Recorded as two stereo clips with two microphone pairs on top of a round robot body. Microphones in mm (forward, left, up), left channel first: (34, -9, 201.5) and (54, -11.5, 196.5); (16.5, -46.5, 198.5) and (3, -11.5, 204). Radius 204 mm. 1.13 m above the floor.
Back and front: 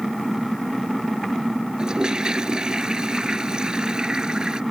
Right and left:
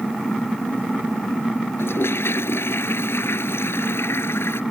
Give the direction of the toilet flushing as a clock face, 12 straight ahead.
2 o'clock.